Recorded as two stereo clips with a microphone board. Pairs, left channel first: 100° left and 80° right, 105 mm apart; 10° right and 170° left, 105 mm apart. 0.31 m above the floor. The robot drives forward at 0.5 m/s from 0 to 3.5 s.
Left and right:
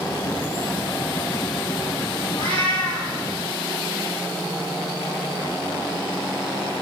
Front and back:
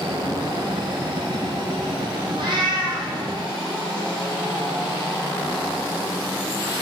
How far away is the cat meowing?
About 4.5 m.